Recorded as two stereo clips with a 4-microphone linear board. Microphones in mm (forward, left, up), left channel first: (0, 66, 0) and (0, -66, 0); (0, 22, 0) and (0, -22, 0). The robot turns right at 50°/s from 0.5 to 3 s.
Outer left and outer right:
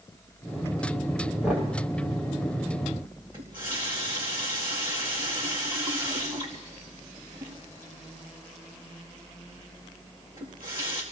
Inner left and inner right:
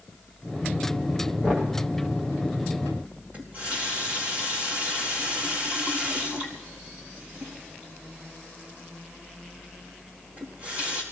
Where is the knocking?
5° right (ahead or behind), 6.5 m; by 1.8 s 20° right (ahead or behind), 6.5 m.